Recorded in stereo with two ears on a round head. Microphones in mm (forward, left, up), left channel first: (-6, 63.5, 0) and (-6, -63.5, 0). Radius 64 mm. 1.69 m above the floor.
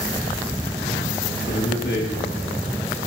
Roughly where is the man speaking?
Left.